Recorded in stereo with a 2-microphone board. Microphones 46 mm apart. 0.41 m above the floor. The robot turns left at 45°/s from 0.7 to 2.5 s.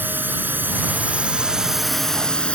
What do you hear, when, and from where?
0.0 s a drone: 130° right; by 2.6 s 150° left